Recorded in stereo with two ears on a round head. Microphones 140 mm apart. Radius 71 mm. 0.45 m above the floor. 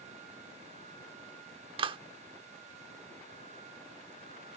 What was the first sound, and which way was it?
A clap, 35° right (ahead or behind).